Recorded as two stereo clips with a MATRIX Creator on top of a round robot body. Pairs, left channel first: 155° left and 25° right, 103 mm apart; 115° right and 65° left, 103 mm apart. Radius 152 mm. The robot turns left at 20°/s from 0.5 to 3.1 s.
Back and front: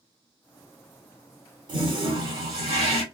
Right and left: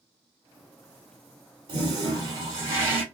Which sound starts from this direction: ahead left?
A toilet flushing, at 1.7 s.